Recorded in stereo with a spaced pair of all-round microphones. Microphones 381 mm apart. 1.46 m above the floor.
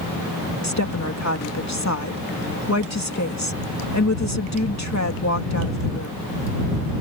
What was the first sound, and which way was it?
A woman speaking, 45° left (ahead or behind).